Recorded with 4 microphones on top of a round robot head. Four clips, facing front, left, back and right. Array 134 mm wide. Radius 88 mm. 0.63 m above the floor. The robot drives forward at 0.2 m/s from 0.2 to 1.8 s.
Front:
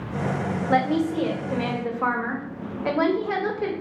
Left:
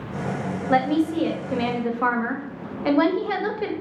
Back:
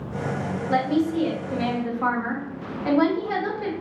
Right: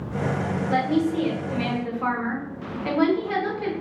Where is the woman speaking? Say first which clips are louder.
Left 3 dB, even; 45° left, 0.8 m; by 3.7 s 75° left, 0.7 m.